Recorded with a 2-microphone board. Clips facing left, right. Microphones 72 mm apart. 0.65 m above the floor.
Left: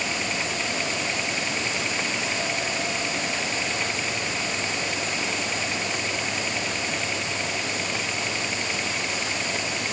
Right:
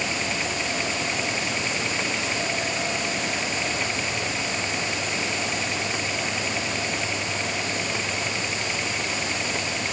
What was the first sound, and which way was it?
Only background noise.